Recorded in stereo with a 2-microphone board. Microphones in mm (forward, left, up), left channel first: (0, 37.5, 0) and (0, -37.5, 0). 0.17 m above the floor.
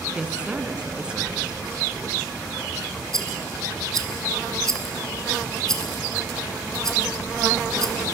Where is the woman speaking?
15° right (ahead or behind), 1.7 m.